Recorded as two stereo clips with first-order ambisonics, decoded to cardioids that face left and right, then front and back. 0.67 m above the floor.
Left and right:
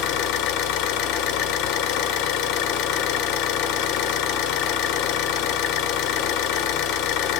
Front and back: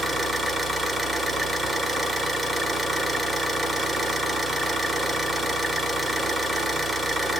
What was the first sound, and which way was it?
An engine running, 105° left.